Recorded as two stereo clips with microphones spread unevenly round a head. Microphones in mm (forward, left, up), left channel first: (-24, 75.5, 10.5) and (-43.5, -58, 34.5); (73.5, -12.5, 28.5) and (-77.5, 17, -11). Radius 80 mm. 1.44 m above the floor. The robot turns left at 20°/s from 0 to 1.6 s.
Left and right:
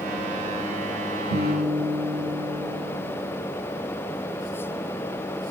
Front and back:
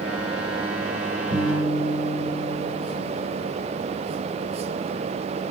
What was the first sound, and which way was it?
A guitar, 170° left.